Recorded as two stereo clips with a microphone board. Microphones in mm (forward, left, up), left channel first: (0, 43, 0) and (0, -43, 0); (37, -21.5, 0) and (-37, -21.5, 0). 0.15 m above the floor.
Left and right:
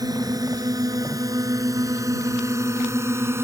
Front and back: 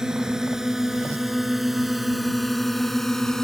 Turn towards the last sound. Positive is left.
turn(degrees=-80)